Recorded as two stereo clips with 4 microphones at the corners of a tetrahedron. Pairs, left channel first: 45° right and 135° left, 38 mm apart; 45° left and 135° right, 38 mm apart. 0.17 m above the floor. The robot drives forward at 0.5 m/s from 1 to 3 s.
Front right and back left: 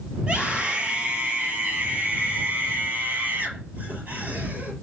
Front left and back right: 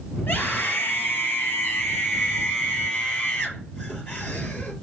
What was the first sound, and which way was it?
A scream, 75° left.